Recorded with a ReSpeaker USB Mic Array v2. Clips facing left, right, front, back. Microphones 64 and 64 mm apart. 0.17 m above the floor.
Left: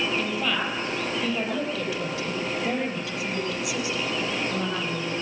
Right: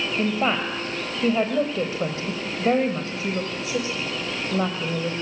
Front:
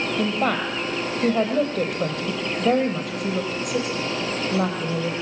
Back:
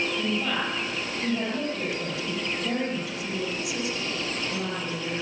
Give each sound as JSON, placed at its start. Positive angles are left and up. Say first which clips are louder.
{"t": 0.2, "sound": "a woman speaking", "louder": "right 4 dB, front 5 dB", "azimuth_deg": -35, "distance_m": 4.5}